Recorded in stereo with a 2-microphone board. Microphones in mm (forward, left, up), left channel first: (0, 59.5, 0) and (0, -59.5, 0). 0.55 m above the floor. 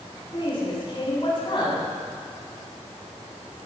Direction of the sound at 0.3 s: 45° left (ahead or behind).